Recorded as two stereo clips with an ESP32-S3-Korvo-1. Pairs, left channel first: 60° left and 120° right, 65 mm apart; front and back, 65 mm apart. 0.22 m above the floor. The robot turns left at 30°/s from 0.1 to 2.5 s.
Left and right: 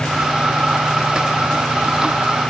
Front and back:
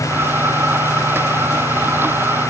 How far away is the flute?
No flute in this recording.